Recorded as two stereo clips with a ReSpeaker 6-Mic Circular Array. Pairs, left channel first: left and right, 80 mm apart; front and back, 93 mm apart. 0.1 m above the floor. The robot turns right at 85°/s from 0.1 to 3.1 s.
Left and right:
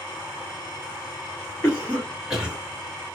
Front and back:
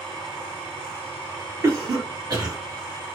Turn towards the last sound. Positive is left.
turn(degrees=-100)